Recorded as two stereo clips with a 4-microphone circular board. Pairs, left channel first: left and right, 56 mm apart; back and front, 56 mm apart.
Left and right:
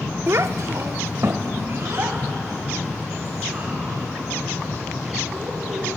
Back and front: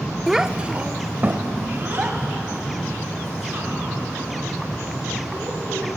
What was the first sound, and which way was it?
A child speaking, 90° right.